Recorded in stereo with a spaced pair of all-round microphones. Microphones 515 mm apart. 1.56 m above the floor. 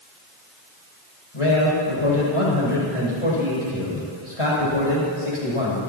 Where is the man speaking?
80° left, 7.5 m.